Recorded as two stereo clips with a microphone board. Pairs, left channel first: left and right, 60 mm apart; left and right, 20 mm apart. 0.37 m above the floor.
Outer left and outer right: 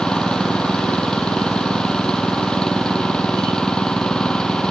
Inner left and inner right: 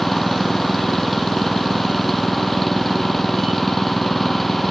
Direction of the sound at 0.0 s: 10° left (ahead or behind).